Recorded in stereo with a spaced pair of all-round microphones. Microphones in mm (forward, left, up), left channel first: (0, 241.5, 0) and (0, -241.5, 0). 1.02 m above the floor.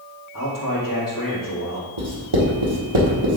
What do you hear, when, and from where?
0.3 s a man speaking: 40° left (ahead or behind), 3 m
2.0 s writing: 70° right (ahead or behind), 1.7 m